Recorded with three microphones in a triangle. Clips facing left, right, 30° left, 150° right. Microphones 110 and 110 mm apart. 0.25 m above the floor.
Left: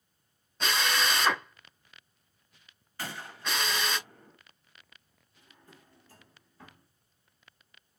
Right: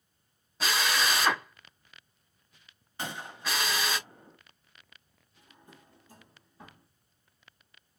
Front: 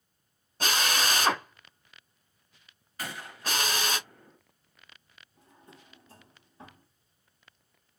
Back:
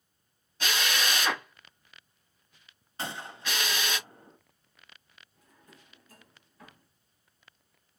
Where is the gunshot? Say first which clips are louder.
Right 1 dB, back 1 dB; 135° right, 0.9 m.